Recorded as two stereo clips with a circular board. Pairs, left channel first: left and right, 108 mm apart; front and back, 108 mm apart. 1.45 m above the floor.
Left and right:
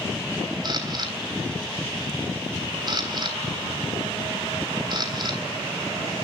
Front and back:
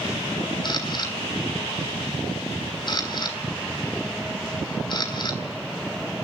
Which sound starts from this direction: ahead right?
A camera shutter, at 0.6 s.